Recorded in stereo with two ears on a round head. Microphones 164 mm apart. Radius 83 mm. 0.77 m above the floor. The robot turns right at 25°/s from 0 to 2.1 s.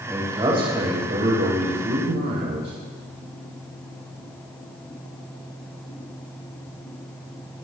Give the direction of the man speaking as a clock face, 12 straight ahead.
5 o'clock.